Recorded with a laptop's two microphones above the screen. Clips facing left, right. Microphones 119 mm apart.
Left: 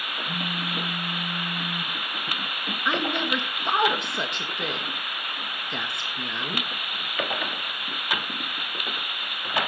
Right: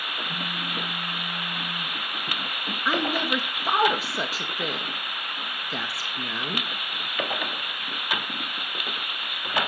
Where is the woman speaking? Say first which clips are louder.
Right 1 dB; 5° right (ahead or behind), 1.3 m.